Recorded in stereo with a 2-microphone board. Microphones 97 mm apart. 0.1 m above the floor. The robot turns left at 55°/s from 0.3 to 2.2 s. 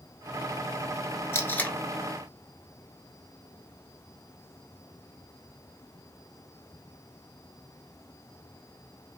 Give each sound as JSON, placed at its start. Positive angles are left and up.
{"t": 1.3, "sound": "tape being pulled", "side_deg": 25, "distance_m": 0.9}